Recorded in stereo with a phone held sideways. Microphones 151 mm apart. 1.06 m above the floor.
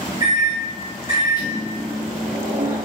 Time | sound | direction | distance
0.2 | a microwave | 30° right (ahead or behind) | 1.6 m